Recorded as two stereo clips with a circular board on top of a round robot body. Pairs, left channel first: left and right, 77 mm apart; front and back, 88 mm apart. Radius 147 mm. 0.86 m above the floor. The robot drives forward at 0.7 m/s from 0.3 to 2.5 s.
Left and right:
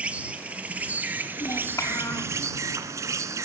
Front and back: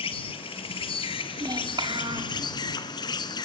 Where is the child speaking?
140° left, 3 m; by 2.4 s 145° left, 3.5 m.